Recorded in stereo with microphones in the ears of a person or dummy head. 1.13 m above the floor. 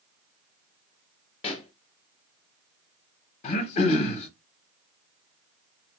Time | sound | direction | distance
1.4 | a pop | 35° left (ahead or behind) | 0.9 m
3.4 | throat clearing | 40° left (ahead or behind) | 0.9 m